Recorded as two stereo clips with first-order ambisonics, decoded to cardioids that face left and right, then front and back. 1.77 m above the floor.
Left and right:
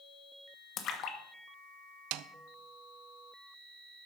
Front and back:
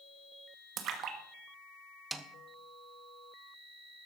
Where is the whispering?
I don't hear whispering.